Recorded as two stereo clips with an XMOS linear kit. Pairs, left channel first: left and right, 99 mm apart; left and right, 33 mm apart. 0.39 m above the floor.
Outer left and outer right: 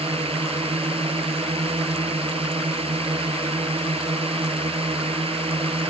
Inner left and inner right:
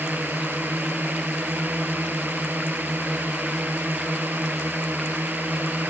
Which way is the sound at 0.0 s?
75° right (ahead or behind).